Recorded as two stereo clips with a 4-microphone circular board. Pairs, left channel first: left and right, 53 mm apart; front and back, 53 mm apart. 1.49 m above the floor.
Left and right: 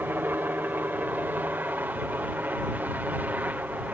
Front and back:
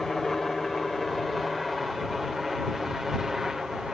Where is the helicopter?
80° right; by 3.9 s 105° right.